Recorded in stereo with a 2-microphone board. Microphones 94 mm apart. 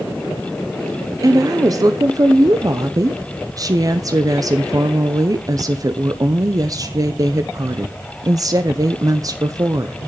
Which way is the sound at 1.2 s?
40° right (ahead or behind).